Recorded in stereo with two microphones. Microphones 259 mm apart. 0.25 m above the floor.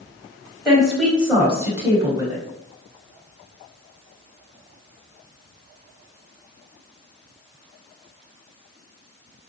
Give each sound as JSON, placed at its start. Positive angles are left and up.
{"t": 0.7, "sound": "a woman speaking", "side_deg": 0, "distance_m": 1.1}